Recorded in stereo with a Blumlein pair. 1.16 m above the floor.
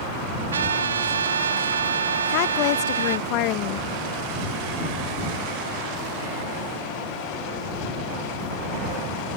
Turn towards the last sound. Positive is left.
turn(degrees=40)